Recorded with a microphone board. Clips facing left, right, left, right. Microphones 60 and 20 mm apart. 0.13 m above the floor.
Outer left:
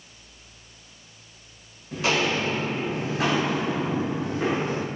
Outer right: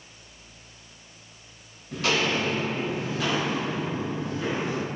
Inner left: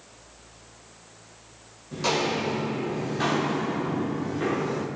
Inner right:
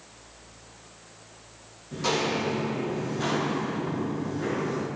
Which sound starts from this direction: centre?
Footsteps, at 1.9 s.